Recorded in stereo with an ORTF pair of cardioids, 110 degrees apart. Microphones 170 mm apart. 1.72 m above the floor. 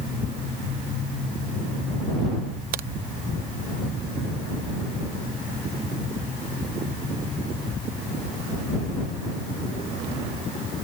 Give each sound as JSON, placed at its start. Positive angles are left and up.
{"t": 2.7, "sound": "a crack", "azimuth_deg": -65}